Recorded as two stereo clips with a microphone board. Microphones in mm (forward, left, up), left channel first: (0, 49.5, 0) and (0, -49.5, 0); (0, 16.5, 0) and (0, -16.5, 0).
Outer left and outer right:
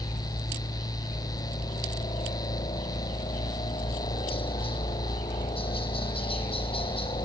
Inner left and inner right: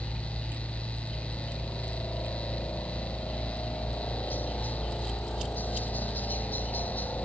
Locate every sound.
0.0 s a helicopter: 70° left (ahead or behind)